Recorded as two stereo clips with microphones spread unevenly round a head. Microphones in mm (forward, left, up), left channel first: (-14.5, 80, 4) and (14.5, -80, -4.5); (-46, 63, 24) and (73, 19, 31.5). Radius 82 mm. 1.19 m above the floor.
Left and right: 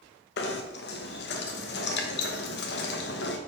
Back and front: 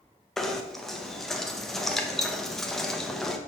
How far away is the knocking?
About 1.0 m.